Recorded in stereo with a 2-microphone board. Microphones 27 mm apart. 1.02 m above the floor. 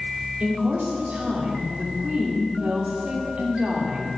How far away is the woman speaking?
About 2.5 m.